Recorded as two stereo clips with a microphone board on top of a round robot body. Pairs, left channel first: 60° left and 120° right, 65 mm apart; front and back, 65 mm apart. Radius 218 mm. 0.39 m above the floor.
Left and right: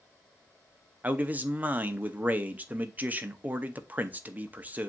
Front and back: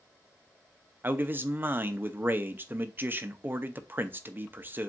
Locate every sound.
1.0 s a man speaking: 160° right, 0.9 m